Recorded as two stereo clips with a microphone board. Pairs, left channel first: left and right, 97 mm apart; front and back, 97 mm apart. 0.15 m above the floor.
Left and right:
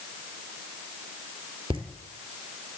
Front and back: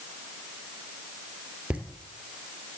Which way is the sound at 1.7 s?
105° right.